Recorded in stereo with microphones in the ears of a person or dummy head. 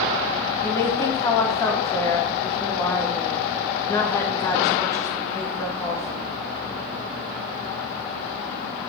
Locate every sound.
0.6 s a woman speaking: 20° left (ahead or behind), 2 m